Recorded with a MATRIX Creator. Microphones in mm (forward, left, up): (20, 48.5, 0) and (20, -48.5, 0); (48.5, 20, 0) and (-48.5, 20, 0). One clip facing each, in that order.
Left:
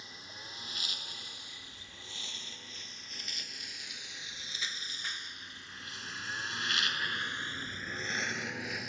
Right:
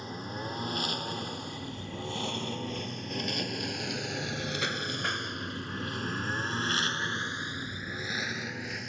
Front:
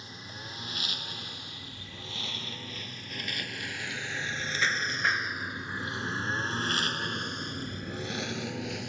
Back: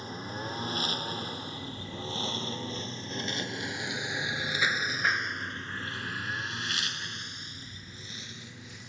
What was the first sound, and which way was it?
A lawn mower, 130° right.